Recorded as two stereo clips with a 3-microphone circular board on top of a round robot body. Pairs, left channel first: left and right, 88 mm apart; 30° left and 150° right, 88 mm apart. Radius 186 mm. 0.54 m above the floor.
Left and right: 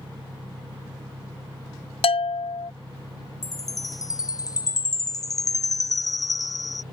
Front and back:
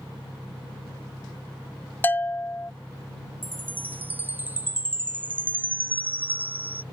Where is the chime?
140° left.